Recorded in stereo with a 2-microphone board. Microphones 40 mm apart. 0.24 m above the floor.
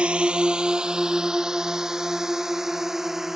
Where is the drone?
30° right (ahead or behind); by 3.4 s 10° right (ahead or behind).